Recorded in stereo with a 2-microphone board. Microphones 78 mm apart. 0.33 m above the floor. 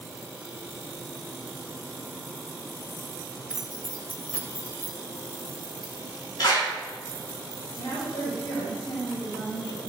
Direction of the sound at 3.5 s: 10° right (ahead or behind).